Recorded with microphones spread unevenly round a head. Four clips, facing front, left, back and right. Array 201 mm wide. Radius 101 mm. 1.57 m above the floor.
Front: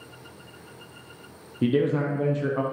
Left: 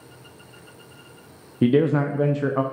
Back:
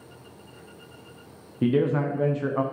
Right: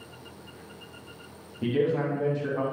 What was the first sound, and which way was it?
A man speaking, 80° left.